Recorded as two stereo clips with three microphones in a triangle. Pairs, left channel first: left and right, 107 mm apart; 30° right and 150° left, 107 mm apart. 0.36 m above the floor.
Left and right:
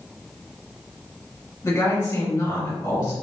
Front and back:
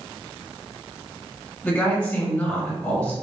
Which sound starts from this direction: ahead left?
A woman speaking, at 1.6 s.